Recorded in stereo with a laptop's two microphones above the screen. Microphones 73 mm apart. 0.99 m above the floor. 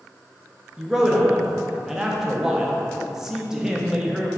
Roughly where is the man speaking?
Centre.